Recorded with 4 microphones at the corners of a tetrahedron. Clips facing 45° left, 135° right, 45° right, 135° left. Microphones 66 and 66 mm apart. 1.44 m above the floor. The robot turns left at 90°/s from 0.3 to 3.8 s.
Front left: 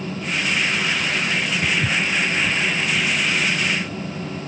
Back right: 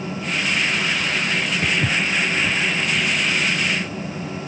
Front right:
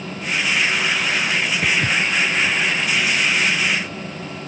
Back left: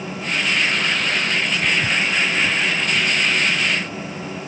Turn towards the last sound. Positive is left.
turn(degrees=60)